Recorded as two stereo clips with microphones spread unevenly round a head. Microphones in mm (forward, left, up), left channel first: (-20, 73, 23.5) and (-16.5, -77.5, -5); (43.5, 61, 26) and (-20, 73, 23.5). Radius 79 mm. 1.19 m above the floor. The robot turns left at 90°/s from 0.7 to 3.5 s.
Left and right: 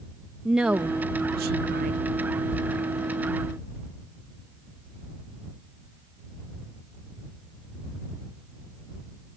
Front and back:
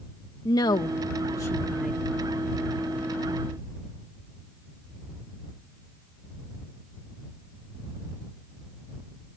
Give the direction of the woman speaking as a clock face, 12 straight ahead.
12 o'clock.